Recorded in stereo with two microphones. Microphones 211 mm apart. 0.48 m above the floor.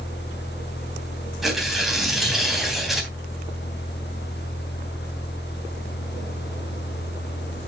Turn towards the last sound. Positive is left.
turn(degrees=0)  # may be behind; listen again after turning